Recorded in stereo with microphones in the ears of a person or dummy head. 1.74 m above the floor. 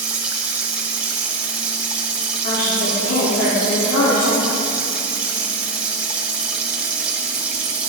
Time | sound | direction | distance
0.0 | running water | 5° right (ahead or behind) | 1.0 m
2.4 | a woman speaking | 70° left (ahead or behind) | 5 m